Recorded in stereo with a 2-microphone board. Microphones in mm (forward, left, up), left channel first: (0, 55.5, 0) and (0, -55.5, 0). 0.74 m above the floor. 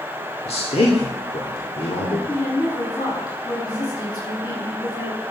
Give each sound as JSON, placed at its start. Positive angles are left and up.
{"t": 0.5, "sound": "a man speaking", "side_deg": 65, "distance_m": 1.9}
{"t": 2.3, "sound": "a woman speaking", "side_deg": 35, "distance_m": 7.0}